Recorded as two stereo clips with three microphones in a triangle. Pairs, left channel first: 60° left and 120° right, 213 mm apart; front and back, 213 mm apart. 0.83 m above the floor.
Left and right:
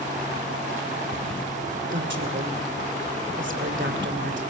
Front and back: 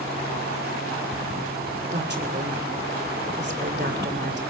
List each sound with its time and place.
1.9 s a woman speaking: 145° right, 2.5 m